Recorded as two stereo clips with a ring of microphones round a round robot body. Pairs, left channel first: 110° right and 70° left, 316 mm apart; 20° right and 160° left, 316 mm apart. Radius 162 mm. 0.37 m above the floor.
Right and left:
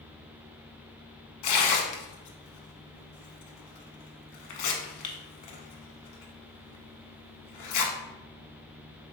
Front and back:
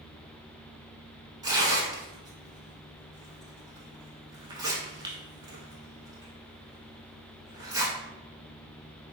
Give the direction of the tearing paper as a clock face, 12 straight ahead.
4 o'clock.